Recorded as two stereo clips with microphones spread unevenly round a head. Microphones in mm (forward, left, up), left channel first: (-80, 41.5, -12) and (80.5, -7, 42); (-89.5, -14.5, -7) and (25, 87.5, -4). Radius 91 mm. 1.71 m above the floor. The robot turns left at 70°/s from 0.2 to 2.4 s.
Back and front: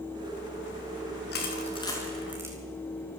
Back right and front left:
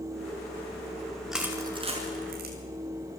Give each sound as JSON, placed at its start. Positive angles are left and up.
{"t": 1.3, "sound": "crushing", "azimuth_deg": 130, "distance_m": 5.0}